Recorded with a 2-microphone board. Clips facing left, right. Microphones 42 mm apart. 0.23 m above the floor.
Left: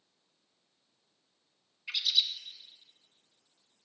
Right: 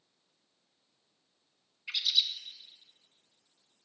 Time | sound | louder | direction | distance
1.9 | a bird | even | centre (ahead or behind) | 1.1 m